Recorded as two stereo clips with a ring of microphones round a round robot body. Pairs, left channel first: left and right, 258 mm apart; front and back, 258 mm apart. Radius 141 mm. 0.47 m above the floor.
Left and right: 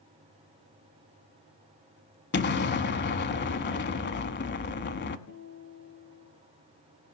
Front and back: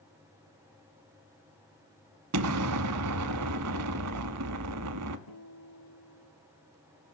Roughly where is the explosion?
Behind left.